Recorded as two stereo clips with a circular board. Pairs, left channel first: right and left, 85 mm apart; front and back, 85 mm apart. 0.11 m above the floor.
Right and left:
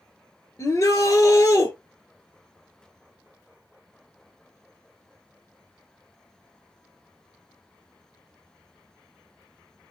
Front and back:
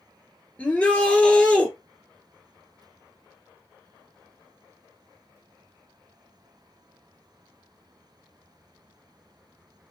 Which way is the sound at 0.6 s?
65° right.